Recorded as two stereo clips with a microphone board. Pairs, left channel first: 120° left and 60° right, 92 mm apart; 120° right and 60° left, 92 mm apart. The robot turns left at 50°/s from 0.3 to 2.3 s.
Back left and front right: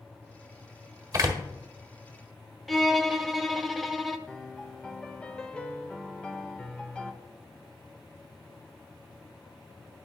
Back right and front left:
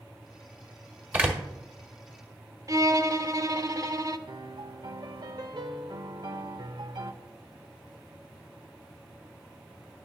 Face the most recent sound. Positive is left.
turn(degrees=40)